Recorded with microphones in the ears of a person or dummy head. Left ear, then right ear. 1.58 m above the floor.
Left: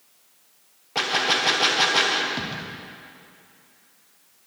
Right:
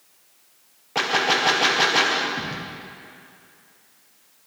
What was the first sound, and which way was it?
A gunshot, 5° right (ahead or behind).